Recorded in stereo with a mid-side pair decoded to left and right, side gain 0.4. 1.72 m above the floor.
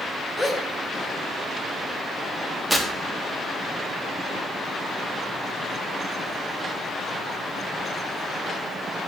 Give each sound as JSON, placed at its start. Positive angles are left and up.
{"t": 0.4, "sound": "a gasp", "azimuth_deg": 15, "distance_m": 4.5}
{"t": 2.7, "sound": "tearing paper", "azimuth_deg": 5, "distance_m": 4.0}